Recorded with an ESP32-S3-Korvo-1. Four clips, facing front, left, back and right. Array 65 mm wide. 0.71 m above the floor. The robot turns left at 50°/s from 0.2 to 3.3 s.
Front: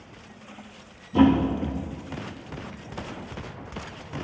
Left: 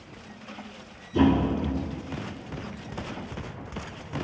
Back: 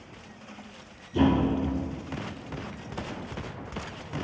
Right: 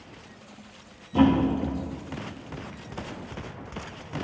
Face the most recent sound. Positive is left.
turn(degrees=-145)